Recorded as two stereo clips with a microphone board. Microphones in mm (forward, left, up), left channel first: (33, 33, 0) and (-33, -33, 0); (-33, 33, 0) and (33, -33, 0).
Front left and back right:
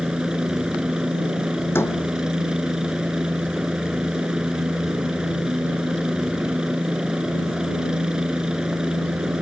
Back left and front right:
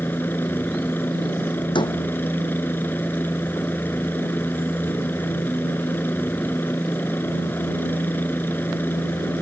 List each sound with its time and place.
0.0 s a helicopter: 155° left
1.8 s a door slam: 110° left